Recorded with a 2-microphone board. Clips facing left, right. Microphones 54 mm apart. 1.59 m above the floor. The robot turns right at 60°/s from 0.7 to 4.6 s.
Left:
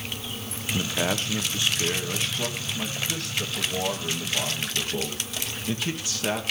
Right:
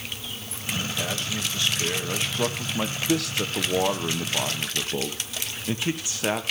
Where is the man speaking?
110° left, 1.2 m; by 6.4 s 20° right, 1.2 m.